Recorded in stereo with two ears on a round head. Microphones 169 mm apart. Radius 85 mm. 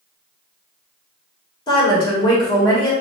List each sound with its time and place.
1.7 s a woman speaking: 25° left (ahead or behind), 1.6 m